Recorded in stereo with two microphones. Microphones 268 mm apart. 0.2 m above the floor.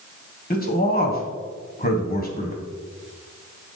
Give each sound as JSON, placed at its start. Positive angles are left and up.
{"t": 0.5, "sound": "a man speaking", "side_deg": 30, "distance_m": 1.1}